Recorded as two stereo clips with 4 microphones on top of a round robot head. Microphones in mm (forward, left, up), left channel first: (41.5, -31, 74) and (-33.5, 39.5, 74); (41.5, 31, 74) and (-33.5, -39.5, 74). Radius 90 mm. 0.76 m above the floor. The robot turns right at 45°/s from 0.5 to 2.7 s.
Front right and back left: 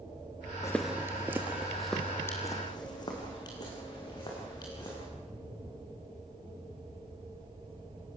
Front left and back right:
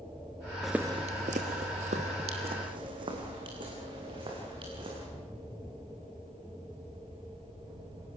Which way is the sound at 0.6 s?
40° right.